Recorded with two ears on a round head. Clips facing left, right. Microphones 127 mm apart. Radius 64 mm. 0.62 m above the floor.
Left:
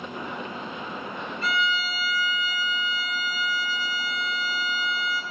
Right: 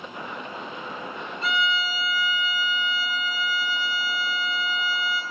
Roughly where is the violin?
Right.